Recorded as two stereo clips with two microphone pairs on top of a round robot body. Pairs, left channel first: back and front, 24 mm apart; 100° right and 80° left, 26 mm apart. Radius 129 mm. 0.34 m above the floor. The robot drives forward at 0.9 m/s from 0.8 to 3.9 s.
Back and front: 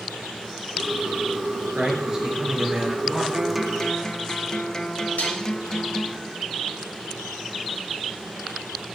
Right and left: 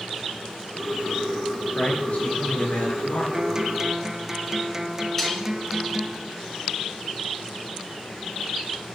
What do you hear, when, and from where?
1.8 s a man speaking: 70° right, 6 m; by 3.2 s 80° right, 5.5 m
3.3 s a guitar: 35° left, 0.8 m; by 6.2 s 140° left, 0.8 m
5.2 s dishes clattering: straight behind, 2.5 m